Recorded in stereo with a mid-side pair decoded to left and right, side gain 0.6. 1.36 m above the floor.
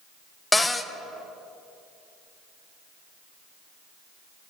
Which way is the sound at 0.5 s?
10° left.